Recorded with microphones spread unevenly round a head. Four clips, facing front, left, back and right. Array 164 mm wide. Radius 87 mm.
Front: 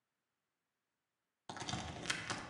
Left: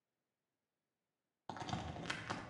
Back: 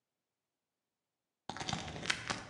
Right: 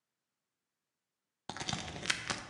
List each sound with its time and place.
1.5 s a crack: 120° right, 0.8 m